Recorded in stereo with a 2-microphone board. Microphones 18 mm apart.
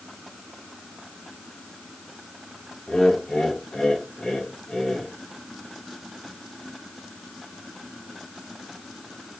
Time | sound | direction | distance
2.9 | laughter | 40° left (ahead or behind) | 4.5 m